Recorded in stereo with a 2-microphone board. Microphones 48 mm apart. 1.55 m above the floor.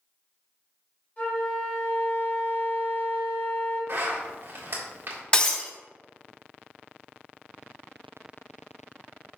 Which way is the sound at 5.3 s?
25° left (ahead or behind).